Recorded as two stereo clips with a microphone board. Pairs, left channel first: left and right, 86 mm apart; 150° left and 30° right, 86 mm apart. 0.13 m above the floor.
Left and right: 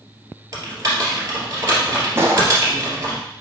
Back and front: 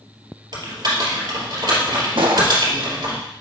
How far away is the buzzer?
I don't hear a buzzer.